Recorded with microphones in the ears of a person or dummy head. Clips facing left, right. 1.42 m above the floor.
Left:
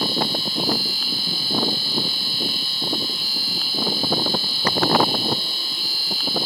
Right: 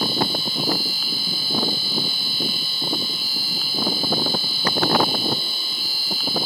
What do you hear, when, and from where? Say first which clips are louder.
0.0 s a machine running: even; centre (ahead or behind)